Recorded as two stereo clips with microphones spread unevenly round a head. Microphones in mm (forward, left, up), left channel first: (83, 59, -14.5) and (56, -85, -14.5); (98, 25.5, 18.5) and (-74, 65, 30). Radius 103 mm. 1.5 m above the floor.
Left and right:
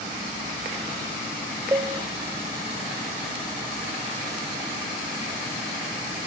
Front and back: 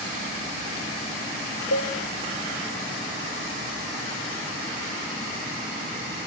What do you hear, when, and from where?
1.7 s a cowbell: 30° right, 1.3 m